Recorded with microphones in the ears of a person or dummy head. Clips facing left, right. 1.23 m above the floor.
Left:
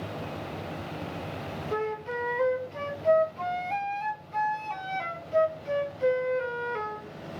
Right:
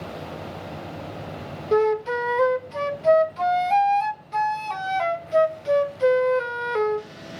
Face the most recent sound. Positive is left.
turn(degrees=-60)  # may be behind; listen again after turning